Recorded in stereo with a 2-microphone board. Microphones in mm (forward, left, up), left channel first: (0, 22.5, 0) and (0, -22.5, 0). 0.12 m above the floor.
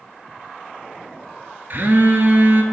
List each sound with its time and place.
1.7 s a phone buzzing: 50° right (ahead or behind), 0.8 m